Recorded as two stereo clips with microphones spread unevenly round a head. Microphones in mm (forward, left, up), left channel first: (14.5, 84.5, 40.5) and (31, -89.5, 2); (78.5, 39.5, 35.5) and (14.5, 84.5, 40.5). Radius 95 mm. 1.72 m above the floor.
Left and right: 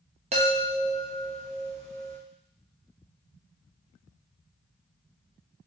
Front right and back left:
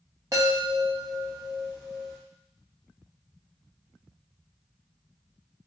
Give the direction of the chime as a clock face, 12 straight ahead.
5 o'clock.